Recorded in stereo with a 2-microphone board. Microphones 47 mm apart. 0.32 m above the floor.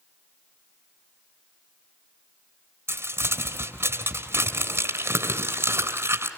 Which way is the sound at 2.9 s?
55° right (ahead or behind).